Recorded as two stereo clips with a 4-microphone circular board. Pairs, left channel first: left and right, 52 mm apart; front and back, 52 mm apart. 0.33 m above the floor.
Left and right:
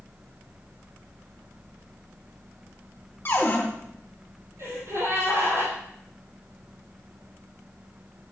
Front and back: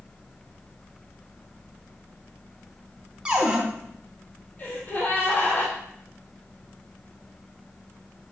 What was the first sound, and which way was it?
A cupboard door, 110° left.